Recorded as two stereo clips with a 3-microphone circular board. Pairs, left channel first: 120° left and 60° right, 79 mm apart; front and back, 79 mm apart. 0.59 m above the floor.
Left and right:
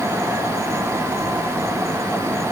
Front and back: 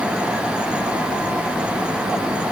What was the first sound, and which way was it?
Only background noise.